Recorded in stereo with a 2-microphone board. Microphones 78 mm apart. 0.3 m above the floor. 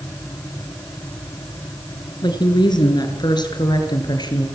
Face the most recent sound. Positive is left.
turn(degrees=60)  # may be behind; listen again after turning